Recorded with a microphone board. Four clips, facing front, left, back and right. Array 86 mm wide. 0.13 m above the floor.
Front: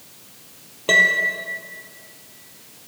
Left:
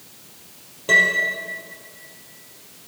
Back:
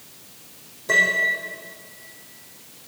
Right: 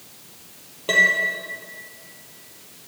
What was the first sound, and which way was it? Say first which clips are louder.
A piano: left 1 dB, front 3 dB; 10° right.